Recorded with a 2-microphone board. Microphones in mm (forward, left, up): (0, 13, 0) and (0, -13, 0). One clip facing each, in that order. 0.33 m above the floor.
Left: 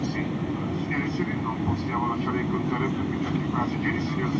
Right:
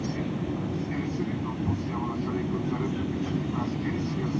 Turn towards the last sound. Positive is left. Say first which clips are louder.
# left 2 dB
turn(degrees=55)  # may be behind; listen again after turning